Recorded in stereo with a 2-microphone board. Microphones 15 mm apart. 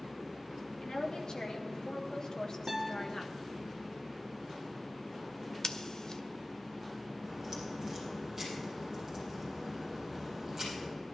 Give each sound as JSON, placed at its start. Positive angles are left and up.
{"t": 0.8, "sound": "a woman speaking", "side_deg": 60, "distance_m": 2.5}
{"t": 2.7, "sound": "a guitar", "side_deg": -55, "distance_m": 3.0}
{"t": 5.6, "sound": "scissors", "side_deg": 45, "distance_m": 0.7}
{"t": 7.2, "sound": "a crack", "side_deg": -25, "distance_m": 6.5}